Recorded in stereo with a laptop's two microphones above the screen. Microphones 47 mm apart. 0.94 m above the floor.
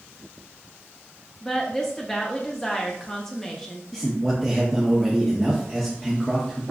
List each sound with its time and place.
1.4 s a woman speaking: 10° left (ahead or behind), 0.6 m
3.9 s a man speaking: 5° left (ahead or behind), 0.6 m